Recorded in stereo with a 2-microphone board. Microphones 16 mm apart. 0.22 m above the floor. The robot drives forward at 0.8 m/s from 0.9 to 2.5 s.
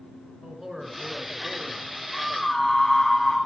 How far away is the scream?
About 1.8 m.